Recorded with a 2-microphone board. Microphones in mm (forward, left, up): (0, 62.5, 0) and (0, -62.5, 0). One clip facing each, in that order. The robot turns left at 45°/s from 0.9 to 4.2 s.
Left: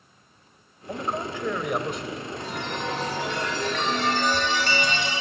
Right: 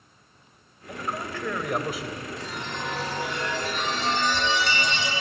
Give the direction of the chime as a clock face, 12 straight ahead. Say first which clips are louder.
Left 3 dB; 8 o'clock.